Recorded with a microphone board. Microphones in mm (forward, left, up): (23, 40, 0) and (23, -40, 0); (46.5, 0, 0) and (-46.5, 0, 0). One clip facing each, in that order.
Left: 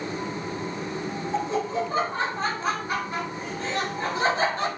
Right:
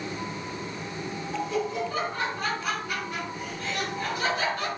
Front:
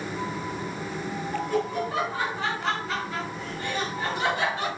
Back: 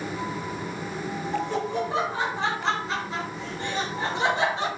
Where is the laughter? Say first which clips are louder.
Left 2 dB, even; 130° left, 1.1 m.